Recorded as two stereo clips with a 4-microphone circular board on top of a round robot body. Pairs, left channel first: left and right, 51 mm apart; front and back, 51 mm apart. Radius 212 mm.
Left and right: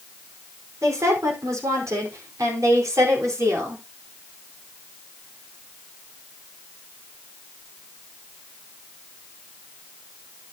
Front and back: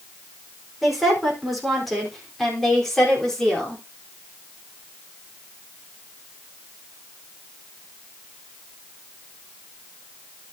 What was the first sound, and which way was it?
A woman speaking, 95° right.